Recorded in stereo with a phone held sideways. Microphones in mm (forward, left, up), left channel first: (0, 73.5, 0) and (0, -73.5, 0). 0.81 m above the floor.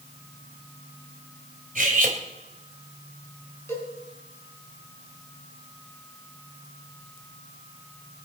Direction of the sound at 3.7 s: 15° left (ahead or behind).